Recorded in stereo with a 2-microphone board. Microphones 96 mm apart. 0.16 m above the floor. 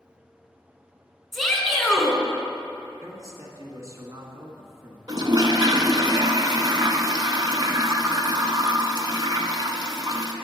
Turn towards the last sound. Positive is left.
turn(degrees=-45)  # may be behind; listen again after turning